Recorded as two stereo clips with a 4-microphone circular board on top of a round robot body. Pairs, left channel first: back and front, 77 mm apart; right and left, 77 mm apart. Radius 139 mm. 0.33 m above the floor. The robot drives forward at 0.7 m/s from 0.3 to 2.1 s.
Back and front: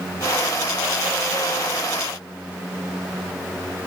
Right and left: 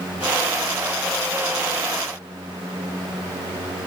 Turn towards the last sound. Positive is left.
No sound to turn to.